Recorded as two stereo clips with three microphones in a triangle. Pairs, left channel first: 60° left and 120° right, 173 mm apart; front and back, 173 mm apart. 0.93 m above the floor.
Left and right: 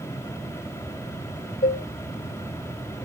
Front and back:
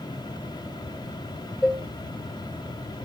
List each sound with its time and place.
1.6 s dishes clattering: 90° left, 0.7 m